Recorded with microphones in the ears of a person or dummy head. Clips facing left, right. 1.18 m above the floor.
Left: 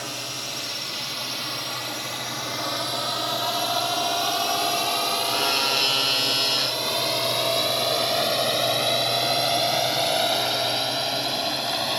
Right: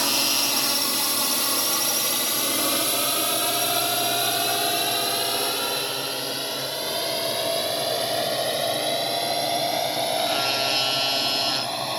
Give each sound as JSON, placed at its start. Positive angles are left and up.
{"t": 0.0, "sound": "a drone", "side_deg": -65}